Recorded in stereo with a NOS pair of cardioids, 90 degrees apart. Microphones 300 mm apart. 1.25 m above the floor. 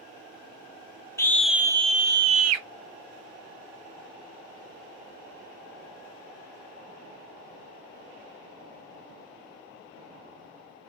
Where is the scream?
10° left, 0.8 m; by 2.6 s 75° right, 0.6 m.